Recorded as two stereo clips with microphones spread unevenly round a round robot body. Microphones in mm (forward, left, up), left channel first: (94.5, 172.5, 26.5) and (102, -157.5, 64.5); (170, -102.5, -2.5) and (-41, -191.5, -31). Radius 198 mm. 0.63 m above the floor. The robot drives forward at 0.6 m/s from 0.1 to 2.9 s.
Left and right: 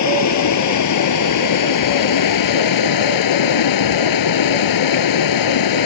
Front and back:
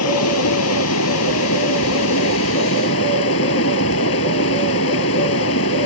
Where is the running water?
55° left; by 5.9 s 70° left.